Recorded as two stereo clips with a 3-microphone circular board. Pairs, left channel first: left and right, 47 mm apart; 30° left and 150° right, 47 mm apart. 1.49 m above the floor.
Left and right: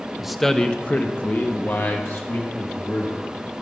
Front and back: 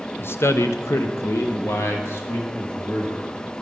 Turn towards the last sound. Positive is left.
turn(degrees=65)